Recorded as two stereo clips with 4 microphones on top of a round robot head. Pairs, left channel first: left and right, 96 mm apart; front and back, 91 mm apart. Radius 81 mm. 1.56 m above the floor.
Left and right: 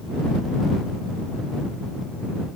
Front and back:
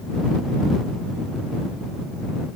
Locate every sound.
Only background noise.